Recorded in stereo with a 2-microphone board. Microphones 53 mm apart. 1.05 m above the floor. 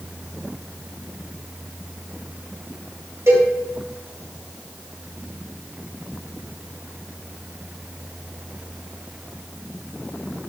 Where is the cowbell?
60° right (ahead or behind), 3 m.